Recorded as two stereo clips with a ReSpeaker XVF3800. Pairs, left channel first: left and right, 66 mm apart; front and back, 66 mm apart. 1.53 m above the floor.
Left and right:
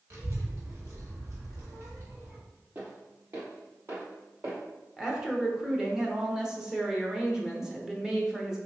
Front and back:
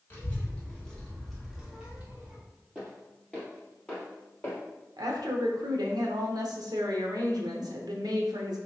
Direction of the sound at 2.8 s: 85° right.